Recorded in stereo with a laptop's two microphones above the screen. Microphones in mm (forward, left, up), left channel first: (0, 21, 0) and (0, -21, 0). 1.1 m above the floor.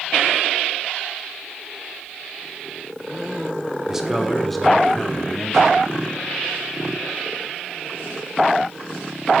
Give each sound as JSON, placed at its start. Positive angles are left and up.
{"t": 3.9, "sound": "a man speaking", "side_deg": -10, "distance_m": 0.8}